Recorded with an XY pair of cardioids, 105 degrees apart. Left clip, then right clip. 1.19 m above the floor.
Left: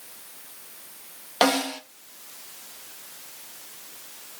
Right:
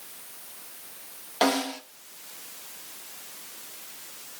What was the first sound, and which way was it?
A snare drum, 45° left.